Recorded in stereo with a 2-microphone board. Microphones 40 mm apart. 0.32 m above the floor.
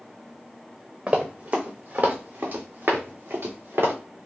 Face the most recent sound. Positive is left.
turn(degrees=-65)  # may be behind; listen again after turning